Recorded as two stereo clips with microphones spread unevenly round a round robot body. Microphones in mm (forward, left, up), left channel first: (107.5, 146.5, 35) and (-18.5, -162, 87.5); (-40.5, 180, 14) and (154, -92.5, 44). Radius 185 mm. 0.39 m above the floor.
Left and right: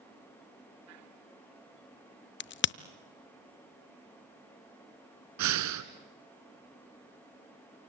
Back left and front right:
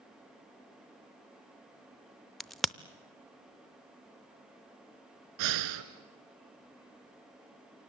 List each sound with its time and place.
2.4 s a crack: 40° left, 0.6 m
5.4 s breathing: 75° right, 1.3 m